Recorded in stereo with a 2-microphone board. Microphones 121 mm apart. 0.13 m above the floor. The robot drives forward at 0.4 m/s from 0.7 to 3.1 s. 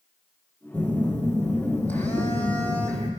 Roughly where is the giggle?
I don't hear a giggle.